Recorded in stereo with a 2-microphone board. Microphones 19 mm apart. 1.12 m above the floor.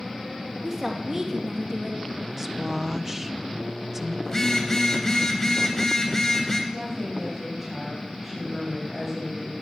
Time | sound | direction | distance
0.6 | a woman speaking | 25° right (ahead or behind) | 1.8 m
2.4 | a woman speaking | 20° right (ahead or behind) | 0.6 m
4.2 | a phone buzzing | 30° left (ahead or behind) | 3 m
6.7 | a woman speaking | 10° left (ahead or behind) | 6.5 m